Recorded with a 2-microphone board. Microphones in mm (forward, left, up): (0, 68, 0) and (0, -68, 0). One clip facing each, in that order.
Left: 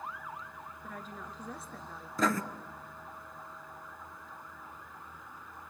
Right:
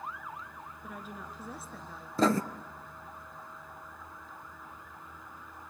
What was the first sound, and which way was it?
A woman speaking, 10° right (ahead or behind).